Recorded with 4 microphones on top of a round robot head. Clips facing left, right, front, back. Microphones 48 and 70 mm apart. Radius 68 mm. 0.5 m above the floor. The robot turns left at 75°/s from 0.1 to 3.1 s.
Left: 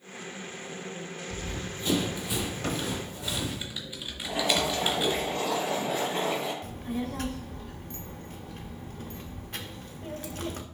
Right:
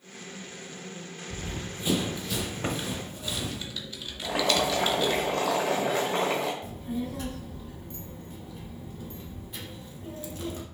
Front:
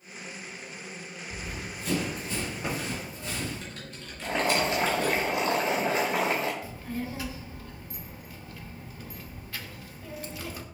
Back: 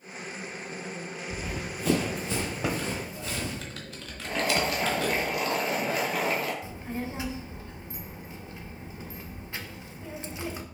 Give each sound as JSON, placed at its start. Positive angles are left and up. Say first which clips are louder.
{"t": 1.3, "sound": "running footsteps", "louder": "right 2 dB, back 3 dB", "azimuth_deg": -150, "distance_m": 0.5}
{"t": 2.6, "sound": "typing on a keyboard", "louder": "even, back 3 dB", "azimuth_deg": -160, "distance_m": 0.9}
{"t": 4.2, "sound": "boiling", "louder": "right 2 dB, front 1 dB", "azimuth_deg": -65, "distance_m": 0.9}
{"t": 6.6, "sound": "a child speaking", "louder": "even, even", "azimuth_deg": 115, "distance_m": 0.8}